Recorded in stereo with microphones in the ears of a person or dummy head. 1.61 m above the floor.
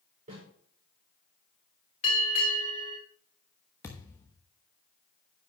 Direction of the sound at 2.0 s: 40° left (ahead or behind).